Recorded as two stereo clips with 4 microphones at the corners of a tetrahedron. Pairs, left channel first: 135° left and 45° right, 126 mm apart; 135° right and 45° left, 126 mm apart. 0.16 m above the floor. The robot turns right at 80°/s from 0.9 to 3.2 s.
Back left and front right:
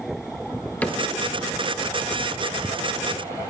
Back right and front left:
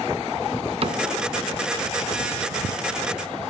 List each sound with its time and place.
0.8 s a cupboard door: 60° left, 1.7 m; by 1.0 s 70° left, 1.7 m